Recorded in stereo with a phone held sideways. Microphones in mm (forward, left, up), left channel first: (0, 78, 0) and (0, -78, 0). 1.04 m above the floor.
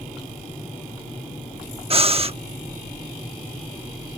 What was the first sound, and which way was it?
Breathing, 40° right (ahead or behind).